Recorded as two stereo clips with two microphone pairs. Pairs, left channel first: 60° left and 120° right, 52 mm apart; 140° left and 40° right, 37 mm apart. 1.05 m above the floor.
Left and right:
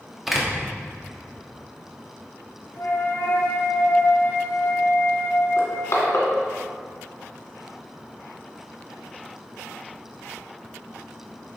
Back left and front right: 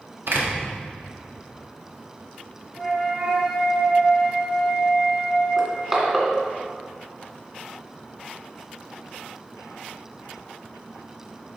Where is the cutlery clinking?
I don't hear cutlery clinking.